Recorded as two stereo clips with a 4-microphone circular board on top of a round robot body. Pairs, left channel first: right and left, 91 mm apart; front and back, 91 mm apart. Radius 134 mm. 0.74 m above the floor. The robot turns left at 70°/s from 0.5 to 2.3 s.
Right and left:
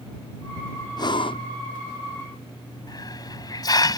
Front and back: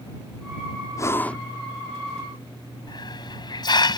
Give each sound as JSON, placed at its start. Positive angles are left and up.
{"t": 1.0, "sound": "breathing", "azimuth_deg": -50}
{"t": 2.9, "sound": "a hiss", "azimuth_deg": -40}